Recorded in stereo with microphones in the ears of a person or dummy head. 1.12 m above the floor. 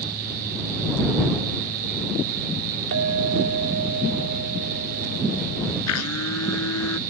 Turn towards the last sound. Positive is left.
turn(degrees=80)